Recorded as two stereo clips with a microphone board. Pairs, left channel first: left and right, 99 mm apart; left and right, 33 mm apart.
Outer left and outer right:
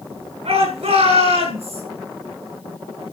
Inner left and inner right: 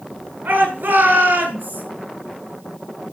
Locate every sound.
0.5 s a shout: 75° right (ahead or behind), 9 m; by 1.8 s 85° right, 7.5 m